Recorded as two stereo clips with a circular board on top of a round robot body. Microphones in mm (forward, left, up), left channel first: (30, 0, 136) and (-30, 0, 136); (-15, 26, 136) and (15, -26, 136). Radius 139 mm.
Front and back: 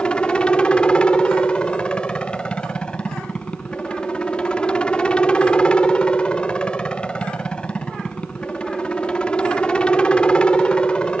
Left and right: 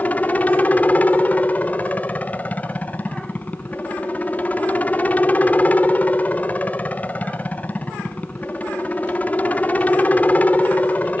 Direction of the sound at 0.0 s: 65° left.